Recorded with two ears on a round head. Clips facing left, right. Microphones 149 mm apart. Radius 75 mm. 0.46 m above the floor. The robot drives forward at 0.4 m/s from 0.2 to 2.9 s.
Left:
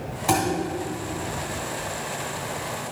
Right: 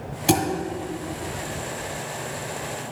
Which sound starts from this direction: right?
A thud, at 0.3 s.